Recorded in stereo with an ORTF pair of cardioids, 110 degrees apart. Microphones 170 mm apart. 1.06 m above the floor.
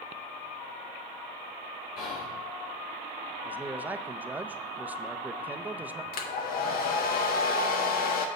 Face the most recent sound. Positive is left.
turn(degrees=60)